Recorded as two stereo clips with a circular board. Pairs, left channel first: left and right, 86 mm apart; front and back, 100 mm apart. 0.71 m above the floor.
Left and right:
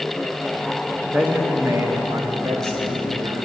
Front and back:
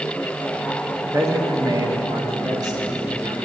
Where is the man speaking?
150° right, 1.0 m; by 3.4 s 140° right, 3 m.